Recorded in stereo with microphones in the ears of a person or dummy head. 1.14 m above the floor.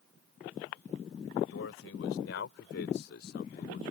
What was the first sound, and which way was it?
A man speaking, 75° left (ahead or behind).